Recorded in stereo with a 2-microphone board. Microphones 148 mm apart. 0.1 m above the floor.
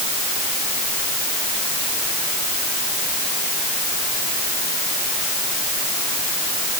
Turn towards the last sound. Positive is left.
No sound to turn to.